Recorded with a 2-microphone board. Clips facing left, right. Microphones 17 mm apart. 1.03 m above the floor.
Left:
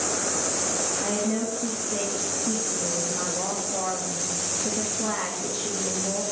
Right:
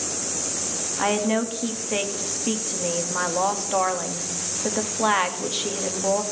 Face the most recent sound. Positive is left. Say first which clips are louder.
# right 8 dB
turn(degrees=-70)  # may be behind; listen again after turning